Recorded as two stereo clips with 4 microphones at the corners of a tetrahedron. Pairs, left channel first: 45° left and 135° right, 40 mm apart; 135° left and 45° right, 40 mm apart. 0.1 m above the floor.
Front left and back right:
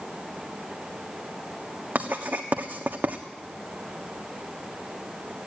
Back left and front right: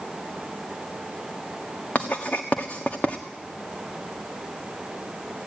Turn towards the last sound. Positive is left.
turn(degrees=180)